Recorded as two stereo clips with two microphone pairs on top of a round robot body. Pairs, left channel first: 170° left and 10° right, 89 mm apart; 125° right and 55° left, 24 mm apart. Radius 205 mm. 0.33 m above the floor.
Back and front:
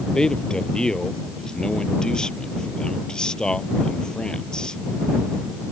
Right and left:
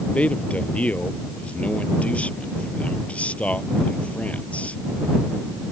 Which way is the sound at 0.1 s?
110° right.